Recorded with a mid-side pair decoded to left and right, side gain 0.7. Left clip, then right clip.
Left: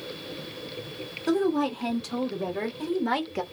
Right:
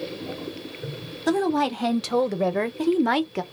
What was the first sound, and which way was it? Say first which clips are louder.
A woman speaking: right 3 dB; 65° right.